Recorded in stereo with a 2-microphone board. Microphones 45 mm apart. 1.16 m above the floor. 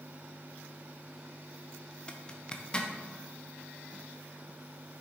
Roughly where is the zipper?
Centre.